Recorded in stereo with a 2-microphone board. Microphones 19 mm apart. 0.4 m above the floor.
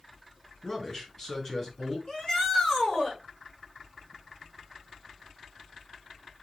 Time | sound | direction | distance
0.6 | a man speaking | 40° left (ahead or behind) | 5.5 m
2.1 | a shout | 50° left (ahead or behind) | 5.5 m